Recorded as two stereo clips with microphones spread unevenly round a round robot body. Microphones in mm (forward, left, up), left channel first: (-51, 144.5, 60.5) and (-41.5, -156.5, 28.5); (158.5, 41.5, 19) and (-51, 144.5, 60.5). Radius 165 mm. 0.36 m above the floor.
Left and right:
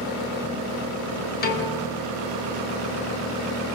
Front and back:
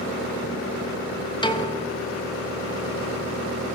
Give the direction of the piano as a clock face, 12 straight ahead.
11 o'clock.